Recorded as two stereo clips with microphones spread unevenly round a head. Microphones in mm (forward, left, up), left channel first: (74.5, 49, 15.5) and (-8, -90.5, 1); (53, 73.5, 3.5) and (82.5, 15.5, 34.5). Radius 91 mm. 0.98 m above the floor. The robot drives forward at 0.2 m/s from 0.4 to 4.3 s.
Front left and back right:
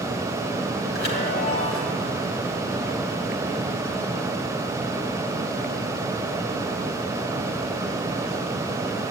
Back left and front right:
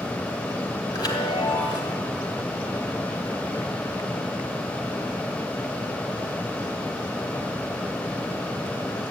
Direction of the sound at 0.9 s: 95° left.